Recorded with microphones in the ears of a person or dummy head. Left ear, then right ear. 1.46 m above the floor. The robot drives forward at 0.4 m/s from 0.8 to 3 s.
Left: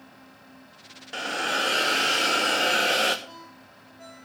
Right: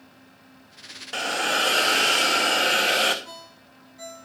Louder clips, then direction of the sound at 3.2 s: Right 2 dB; 70° right (ahead or behind).